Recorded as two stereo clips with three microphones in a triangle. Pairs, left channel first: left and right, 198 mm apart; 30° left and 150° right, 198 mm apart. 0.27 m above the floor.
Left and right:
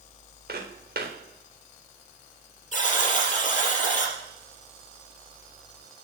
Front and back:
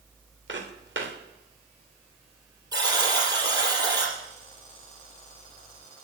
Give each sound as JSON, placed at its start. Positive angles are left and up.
{"t": 0.5, "sound": "footsteps", "azimuth_deg": -130, "distance_m": 3.5}
{"t": 2.7, "sound": "a buzzer", "azimuth_deg": 140, "distance_m": 5.0}